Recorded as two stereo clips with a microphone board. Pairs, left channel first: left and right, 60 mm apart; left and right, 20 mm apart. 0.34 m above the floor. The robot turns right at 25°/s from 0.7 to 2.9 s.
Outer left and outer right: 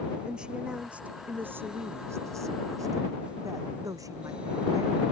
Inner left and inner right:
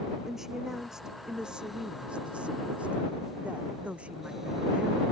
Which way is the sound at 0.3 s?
165° right.